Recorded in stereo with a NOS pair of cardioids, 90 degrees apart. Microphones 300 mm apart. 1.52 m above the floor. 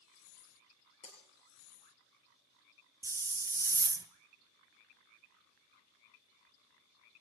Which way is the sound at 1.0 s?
60° left.